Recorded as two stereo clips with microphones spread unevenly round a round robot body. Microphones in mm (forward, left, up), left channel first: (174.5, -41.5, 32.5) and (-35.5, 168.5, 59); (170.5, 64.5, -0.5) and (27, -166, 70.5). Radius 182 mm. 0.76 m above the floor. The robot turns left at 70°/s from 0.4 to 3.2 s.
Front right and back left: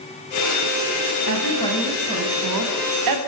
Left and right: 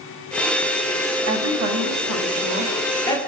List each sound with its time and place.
1.3 s a woman speaking: 95° right, 6 m; by 3.2 s 130° left, 6 m